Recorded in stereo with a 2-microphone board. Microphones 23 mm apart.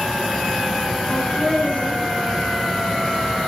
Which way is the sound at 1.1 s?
45° left (ahead or behind).